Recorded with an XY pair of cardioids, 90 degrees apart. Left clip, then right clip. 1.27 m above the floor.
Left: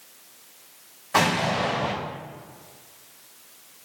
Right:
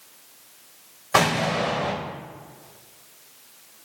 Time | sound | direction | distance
1.1 | an explosion | 60° right | 3 m